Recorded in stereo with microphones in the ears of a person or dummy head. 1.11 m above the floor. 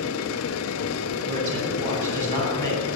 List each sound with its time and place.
0.0 s a machine running: 75° left (ahead or behind), 1.0 m
1.3 s a man speaking: 45° right (ahead or behind), 7.5 m